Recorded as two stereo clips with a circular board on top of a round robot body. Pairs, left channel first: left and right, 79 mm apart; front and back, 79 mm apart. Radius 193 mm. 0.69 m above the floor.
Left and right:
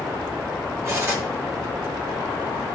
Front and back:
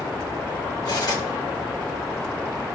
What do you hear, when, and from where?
0.8 s cutlery clinking: 35° right, 1.8 m